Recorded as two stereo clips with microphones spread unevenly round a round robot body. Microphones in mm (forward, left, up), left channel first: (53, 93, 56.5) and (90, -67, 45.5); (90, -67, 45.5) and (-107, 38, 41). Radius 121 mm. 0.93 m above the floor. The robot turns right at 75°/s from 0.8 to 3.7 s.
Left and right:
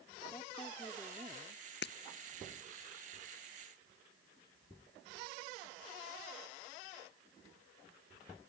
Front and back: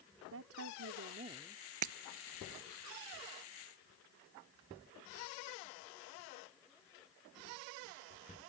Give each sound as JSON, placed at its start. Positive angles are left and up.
{"t": 0.3, "sound": "a woman speaking", "azimuth_deg": 180}
{"t": 1.8, "sound": "breaking glass", "azimuth_deg": 150}